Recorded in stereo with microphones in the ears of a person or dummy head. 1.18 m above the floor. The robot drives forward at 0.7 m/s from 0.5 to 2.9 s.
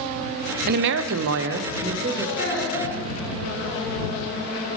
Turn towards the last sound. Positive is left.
turn(degrees=50)  # may be behind; listen again after turning